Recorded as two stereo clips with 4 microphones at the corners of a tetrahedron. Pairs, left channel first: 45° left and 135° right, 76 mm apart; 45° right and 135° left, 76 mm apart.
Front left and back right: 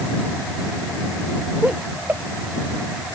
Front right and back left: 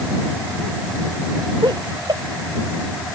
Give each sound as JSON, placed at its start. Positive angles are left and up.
{"t": 1.6, "sound": "laughter", "azimuth_deg": 155}